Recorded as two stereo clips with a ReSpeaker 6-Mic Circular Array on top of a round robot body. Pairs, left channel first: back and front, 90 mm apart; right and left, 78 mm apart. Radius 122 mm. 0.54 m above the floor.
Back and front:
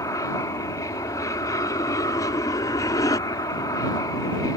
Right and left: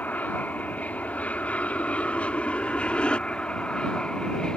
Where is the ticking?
No ticking in this recording.